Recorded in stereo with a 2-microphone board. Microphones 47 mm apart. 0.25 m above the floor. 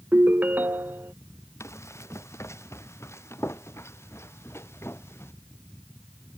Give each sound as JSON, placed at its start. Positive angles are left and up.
{"t": 0.1, "sound": "a ringtone", "side_deg": -45}
{"t": 1.6, "sound": "running footsteps", "side_deg": 80}